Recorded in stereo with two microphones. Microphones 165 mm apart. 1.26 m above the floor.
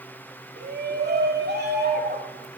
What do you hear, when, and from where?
0.6 s a shout: 75° right (ahead or behind), 2.5 m; by 2.5 s 70° right (ahead or behind), 3 m